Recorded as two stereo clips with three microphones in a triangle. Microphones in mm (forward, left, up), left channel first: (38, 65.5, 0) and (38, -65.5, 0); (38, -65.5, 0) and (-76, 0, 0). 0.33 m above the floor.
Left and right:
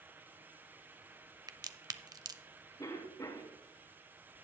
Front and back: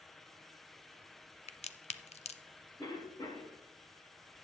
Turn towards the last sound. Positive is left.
turn(degrees=25)